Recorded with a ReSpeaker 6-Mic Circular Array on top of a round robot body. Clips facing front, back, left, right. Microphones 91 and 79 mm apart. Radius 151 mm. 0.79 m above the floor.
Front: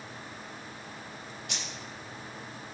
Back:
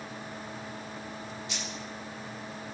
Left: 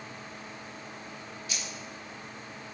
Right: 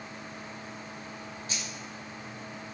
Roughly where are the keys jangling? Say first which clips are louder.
Back 2 dB, even; ahead right.